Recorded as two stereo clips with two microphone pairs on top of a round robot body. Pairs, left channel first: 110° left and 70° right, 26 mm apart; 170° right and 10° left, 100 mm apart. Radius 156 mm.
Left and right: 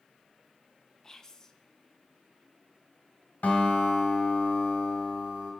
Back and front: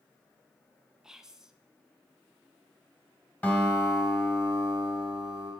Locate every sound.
1.0 s whispering: 80° left, 0.8 m
3.4 s a guitar: 115° left, 1.6 m